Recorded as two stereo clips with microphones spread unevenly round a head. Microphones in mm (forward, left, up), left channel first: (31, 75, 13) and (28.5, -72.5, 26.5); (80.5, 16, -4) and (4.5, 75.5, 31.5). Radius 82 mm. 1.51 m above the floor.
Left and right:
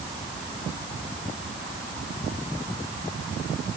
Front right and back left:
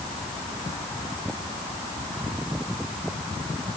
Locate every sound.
Only background noise.